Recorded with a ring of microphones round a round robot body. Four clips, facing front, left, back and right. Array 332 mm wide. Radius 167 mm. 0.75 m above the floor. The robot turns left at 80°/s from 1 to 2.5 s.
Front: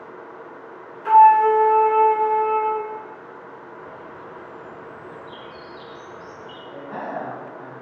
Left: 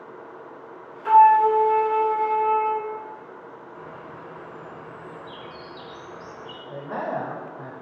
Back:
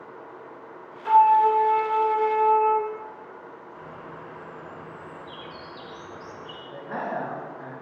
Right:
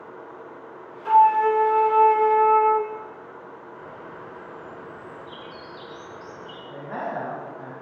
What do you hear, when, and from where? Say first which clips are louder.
1.1 s a flute: left 2 dB, front 5 dB; 30° left, 0.7 m; by 2.9 s 85° right, 0.7 m
3.8 s a bird: left 1 dB, front 2 dB; 125° left, 4.5 m
6.7 s a man speaking: left 2 dB, even; 95° left, 2.5 m